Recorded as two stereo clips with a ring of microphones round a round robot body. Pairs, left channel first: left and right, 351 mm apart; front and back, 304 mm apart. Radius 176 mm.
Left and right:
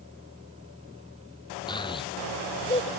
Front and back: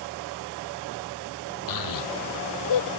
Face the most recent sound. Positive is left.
turn(degrees=15)